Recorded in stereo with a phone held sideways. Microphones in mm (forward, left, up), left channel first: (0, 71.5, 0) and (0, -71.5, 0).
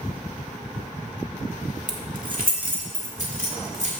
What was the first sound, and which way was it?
Keys jangling, 65° right (ahead or behind).